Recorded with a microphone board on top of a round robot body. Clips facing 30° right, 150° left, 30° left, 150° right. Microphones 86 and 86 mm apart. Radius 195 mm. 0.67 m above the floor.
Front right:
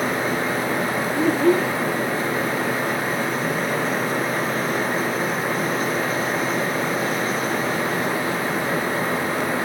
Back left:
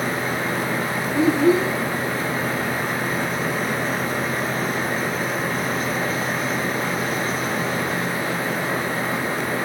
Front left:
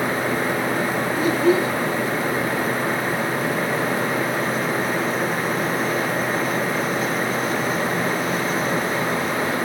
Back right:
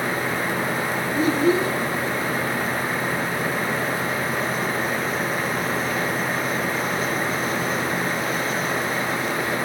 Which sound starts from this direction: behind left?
A child speaking, at 1.1 s.